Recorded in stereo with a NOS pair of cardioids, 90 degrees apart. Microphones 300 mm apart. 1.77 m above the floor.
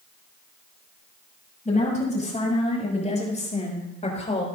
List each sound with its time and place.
1.6 s a woman speaking: 25° left, 9.5 m; by 4.5 s 20° left, 6 m